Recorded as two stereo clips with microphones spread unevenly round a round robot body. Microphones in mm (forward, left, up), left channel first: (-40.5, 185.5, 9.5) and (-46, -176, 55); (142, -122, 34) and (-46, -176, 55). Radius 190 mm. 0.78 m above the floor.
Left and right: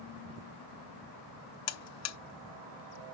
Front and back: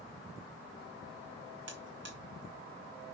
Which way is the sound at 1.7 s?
140° left.